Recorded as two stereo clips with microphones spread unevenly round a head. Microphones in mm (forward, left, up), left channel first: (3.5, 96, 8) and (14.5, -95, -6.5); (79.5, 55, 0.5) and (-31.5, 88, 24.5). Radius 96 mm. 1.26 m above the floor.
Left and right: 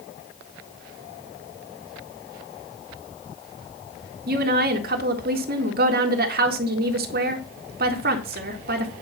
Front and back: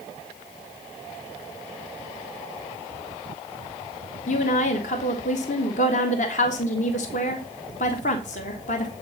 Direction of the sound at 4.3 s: 45° right.